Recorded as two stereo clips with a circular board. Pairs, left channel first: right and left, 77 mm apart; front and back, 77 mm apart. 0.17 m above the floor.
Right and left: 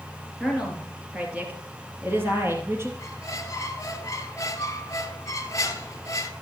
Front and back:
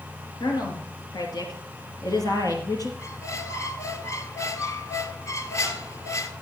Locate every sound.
0.4 s a woman speaking: 5° left, 3 m; by 2.9 s 35° left, 4 m
3.0 s a squeak: 45° right, 1.0 m